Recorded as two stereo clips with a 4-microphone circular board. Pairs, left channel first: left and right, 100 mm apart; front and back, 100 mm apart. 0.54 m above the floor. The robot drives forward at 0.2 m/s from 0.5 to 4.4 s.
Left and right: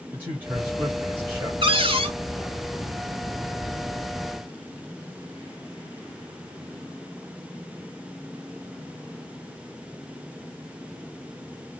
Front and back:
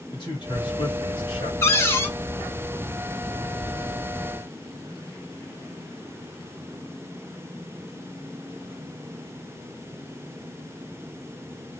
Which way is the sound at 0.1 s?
25° right.